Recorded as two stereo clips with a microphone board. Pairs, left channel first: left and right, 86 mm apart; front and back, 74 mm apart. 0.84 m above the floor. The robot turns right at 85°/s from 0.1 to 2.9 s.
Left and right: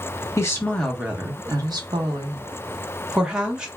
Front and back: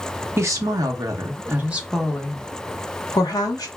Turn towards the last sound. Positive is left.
turn(degrees=-10)